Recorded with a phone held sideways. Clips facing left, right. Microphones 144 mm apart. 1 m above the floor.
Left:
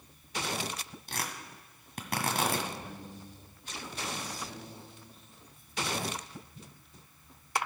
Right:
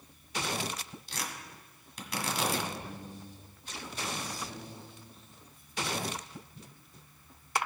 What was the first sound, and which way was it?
Tearing paper, 55° left (ahead or behind).